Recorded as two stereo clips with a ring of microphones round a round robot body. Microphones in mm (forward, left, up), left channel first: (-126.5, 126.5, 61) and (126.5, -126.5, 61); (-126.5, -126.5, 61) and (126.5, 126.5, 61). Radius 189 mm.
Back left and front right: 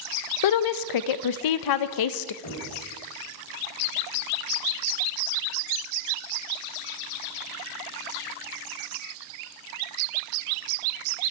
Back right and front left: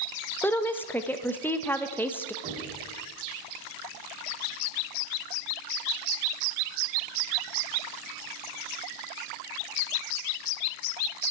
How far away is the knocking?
About 5.5 m.